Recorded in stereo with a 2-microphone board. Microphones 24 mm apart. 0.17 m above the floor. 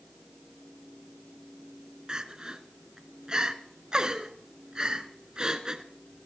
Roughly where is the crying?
Right.